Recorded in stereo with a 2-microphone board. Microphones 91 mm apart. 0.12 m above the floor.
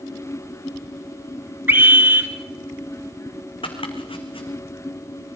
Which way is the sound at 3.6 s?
80° left.